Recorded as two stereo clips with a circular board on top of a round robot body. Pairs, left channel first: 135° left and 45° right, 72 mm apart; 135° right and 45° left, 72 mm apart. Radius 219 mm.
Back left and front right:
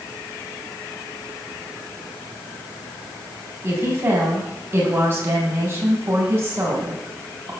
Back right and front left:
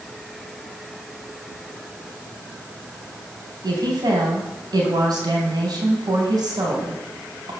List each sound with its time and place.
3.6 s a woman speaking: 15° left, 4.5 m